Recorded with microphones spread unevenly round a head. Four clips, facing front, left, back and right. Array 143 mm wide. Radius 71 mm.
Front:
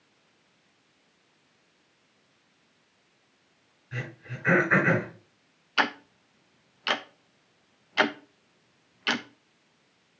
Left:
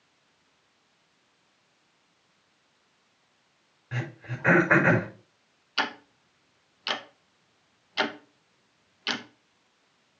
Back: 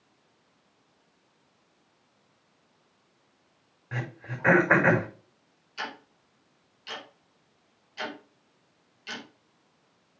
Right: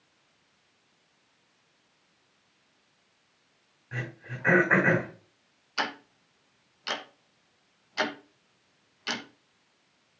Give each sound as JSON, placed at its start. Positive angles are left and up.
{"t": 3.9, "sound": "throat clearing", "azimuth_deg": 165, "distance_m": 5.5}
{"t": 5.8, "sound": "ticking", "azimuth_deg": 10, "distance_m": 1.3}